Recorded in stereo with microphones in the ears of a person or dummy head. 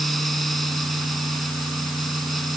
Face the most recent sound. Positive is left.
turn(degrees=0)  # may be behind; listen again after turning